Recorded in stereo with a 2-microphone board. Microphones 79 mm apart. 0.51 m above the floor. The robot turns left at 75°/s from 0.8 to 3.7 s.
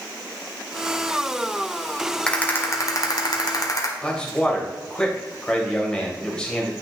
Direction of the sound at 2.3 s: 165° left.